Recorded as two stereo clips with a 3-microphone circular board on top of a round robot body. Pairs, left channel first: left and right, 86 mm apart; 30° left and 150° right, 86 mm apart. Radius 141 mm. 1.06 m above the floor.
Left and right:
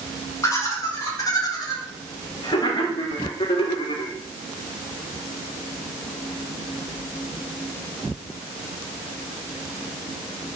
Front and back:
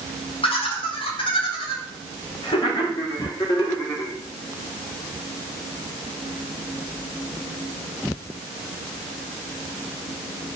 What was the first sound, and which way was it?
Laughter, 35° left.